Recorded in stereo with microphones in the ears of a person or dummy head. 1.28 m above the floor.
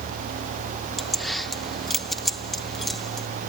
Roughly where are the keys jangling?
Centre.